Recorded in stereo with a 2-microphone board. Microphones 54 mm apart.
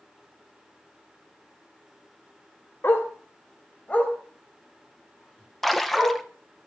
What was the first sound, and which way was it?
A dog barking, 45° left (ahead or behind).